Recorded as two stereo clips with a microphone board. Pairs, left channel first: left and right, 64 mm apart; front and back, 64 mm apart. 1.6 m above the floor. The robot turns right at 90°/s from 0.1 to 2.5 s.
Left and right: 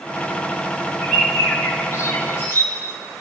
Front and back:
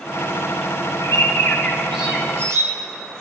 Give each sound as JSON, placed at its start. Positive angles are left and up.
{"t": 1.0, "sound": "a bird", "azimuth_deg": 15, "distance_m": 2.5}